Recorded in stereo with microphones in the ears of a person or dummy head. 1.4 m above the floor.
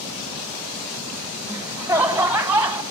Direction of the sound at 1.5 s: 5° right (ahead or behind).